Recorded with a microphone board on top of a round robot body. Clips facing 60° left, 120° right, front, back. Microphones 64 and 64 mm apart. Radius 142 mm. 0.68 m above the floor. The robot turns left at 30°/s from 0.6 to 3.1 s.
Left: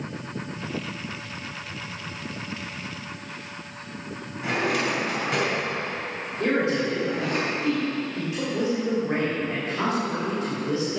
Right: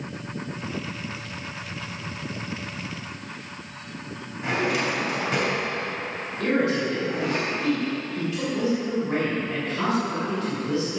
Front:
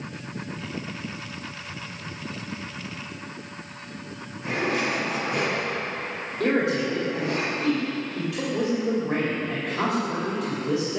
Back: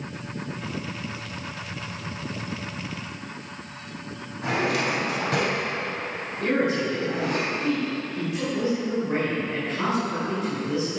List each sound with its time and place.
4.4 s a drawer: 150° left, 3 m
6.4 s a man speaking: 5° right, 3 m